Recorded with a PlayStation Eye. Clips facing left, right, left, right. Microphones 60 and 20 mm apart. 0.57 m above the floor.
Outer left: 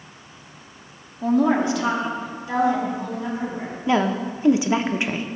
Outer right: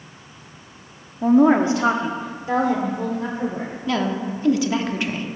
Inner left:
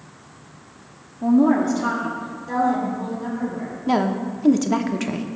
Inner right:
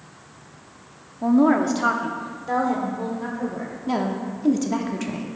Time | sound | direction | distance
1.2 | a woman speaking | 20° right (ahead or behind) | 0.6 m
3.9 | a woman speaking | 20° left (ahead or behind) | 0.7 m